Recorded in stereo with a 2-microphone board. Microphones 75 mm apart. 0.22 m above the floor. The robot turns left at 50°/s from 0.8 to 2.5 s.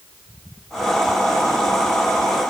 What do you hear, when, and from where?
Only background noise.